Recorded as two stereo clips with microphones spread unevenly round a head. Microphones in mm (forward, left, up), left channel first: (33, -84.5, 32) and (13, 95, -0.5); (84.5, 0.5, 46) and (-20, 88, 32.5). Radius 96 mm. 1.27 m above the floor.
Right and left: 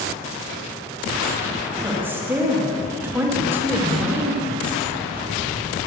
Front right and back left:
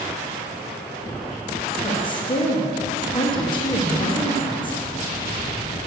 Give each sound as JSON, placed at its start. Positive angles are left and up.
{"t": 1.8, "sound": "a woman speaking", "azimuth_deg": 15, "distance_m": 1.8}